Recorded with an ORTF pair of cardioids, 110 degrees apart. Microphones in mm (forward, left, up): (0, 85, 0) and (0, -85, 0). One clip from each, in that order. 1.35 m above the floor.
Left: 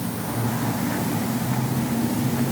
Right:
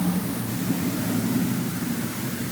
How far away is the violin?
No violin in this recording.